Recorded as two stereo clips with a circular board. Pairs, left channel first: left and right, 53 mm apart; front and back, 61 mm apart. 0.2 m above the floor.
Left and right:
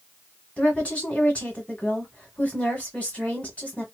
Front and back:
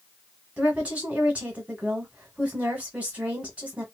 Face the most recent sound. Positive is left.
turn(degrees=130)